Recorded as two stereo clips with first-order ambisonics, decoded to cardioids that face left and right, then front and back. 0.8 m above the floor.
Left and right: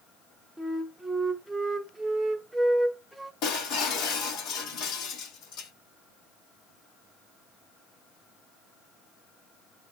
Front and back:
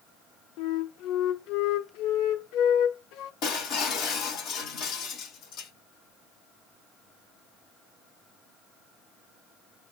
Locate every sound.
0.6 s a flute: 5° right, 0.6 m
3.4 s breaking glass: 45° left, 2.5 m